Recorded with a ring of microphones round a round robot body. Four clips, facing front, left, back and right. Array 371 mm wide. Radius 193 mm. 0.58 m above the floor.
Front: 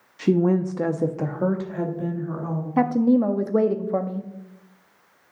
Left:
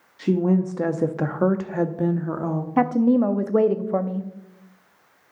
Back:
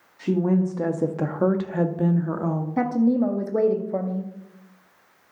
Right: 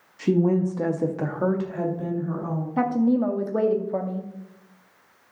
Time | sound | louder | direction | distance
0.2 | a woman speaking | even, front 2 dB | 10° right | 0.8 m
2.8 | a woman speaking | left 3 dB, front 3 dB | 60° left | 0.7 m